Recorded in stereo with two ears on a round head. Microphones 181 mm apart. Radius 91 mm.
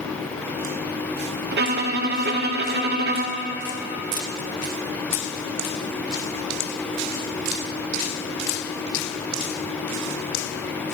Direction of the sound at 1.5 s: 50° right (ahead or behind).